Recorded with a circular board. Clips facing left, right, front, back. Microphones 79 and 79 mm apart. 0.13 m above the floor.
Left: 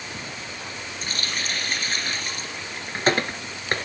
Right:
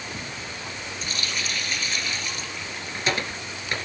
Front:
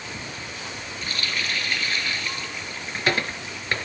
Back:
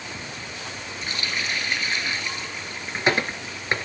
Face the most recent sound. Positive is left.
turn(degrees=120)